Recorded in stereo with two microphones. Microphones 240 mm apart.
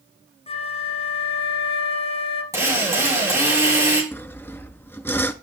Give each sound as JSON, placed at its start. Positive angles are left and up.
{"t": 0.5, "sound": "a flute", "side_deg": 25, "distance_m": 1.4}
{"t": 2.5, "sound": "a drill", "side_deg": -15, "distance_m": 6.5}
{"t": 4.1, "sound": "sawing", "side_deg": 10, "distance_m": 0.6}